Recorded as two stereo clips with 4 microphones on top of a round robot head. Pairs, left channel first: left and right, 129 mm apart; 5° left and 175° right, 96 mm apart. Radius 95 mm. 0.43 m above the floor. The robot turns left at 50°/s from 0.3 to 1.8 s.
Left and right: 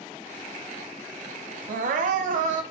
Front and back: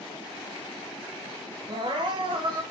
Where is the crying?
120° right, 1.1 m; by 2.6 s 125° right, 1.1 m.